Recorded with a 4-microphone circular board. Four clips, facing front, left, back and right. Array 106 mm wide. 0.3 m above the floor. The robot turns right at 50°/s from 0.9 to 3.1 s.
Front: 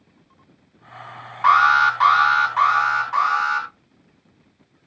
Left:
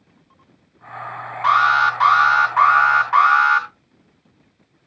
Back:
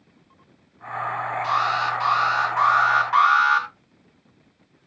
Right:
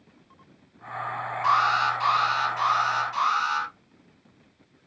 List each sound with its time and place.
1.4 s an alarm: 20° left, 3.5 m; by 3.7 s 105° left, 3.5 m